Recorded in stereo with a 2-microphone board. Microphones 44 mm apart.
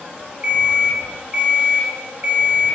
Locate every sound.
0.4 s an alarm clock: 35° right (ahead or behind), 0.8 m